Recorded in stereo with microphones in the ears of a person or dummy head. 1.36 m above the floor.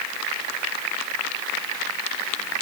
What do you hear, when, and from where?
Only background noise.